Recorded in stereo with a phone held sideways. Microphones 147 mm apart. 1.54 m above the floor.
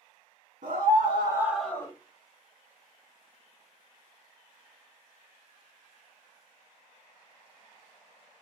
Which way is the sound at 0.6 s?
65° right (ahead or behind).